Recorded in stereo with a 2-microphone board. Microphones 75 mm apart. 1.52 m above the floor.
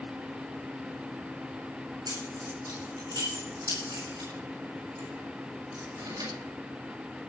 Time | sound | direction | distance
2.1 | keys jangling | 70° right (ahead or behind) | 7.5 m